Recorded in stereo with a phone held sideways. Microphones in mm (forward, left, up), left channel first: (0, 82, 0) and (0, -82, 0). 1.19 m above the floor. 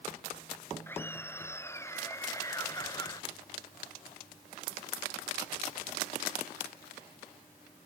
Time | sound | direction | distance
0.9 | laughter | 15° left (ahead or behind) | ?